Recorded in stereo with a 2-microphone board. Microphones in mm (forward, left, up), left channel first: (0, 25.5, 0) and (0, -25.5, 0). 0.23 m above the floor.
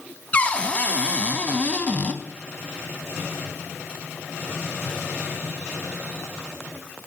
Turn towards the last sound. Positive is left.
turn(degrees=25)  # may be behind; listen again after turning